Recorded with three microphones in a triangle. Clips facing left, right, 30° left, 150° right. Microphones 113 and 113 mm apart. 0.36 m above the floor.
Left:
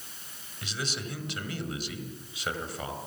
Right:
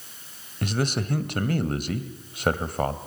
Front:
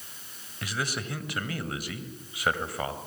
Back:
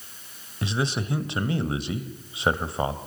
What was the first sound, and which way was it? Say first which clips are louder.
A man speaking: right 10 dB, back 6 dB; 90° right.